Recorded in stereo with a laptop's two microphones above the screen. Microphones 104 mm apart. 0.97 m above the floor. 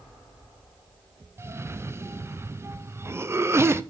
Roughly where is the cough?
Right.